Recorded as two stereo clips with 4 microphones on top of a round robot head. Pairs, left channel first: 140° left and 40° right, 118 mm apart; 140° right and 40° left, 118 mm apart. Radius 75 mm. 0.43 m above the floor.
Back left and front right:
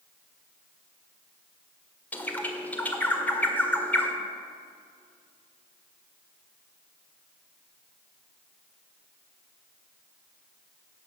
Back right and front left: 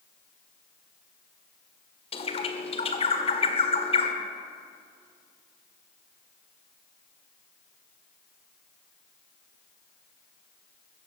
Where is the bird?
145° right, 1.8 m.